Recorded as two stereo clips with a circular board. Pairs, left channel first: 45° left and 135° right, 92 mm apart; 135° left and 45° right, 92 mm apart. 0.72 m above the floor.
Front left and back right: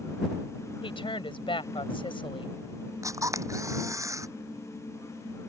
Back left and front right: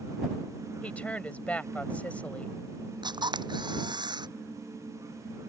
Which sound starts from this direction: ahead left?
A woman speaking, at 0.8 s.